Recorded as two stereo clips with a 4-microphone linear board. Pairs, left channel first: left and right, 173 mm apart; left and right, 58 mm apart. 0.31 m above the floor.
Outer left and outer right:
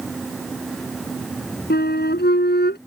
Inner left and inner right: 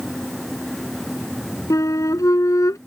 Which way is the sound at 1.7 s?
75° left (ahead or behind).